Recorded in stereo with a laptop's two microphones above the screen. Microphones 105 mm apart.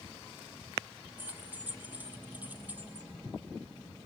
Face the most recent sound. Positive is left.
turn(degrees=-15)  # may be behind; listen again after turning